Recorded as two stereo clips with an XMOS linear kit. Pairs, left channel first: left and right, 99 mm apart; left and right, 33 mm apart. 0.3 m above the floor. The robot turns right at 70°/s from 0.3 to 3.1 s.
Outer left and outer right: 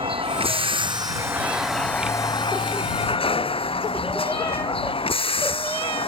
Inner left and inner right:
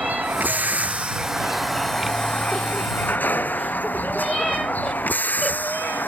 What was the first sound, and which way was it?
A vehicle, 95° right.